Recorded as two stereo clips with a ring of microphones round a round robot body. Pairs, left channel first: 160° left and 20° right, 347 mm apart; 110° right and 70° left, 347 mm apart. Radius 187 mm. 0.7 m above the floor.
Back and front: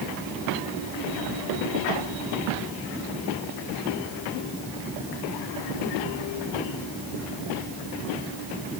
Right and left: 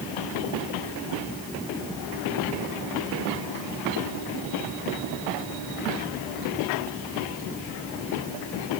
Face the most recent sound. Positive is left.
No sound to turn to.